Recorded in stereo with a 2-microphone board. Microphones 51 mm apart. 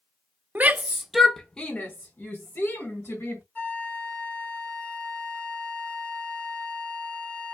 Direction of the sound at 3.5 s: 35° left (ahead or behind).